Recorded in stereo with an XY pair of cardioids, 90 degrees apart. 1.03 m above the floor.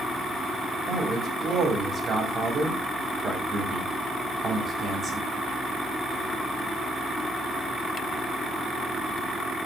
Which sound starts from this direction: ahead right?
A man speaking, at 0.9 s.